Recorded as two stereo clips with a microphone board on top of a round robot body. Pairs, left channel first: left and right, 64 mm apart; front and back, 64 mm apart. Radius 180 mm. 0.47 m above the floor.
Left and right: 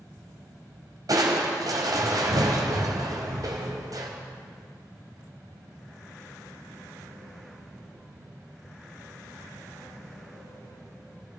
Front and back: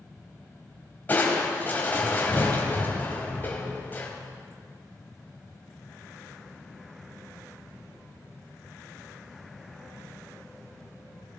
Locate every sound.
1.1 s crushing: 60° right, 2 m